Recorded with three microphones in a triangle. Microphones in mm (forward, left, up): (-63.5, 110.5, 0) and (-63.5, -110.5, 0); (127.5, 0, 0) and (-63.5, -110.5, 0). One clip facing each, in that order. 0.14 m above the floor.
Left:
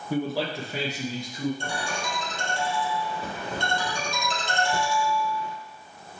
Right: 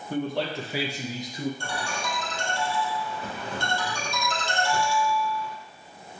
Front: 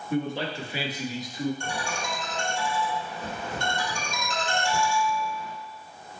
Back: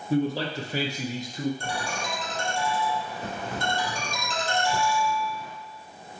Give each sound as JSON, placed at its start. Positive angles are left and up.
{"t": 0.1, "sound": "a man speaking", "azimuth_deg": 165, "distance_m": 1.6}
{"t": 1.6, "sound": "a ringtone", "azimuth_deg": 160, "distance_m": 3.0}